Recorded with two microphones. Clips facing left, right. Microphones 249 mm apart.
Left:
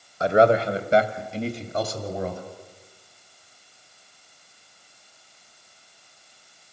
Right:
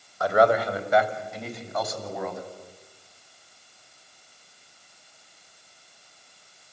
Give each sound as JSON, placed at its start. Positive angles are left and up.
{"t": 0.2, "sound": "a man speaking", "side_deg": 25, "distance_m": 1.4}